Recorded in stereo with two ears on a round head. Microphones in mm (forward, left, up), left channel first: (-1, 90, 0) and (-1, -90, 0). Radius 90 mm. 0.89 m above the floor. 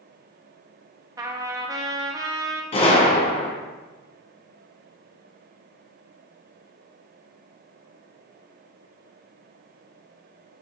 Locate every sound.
1.2 s a trumpet: 20° right (ahead or behind), 1.0 m
2.7 s a gunshot: 30° left (ahead or behind), 2.0 m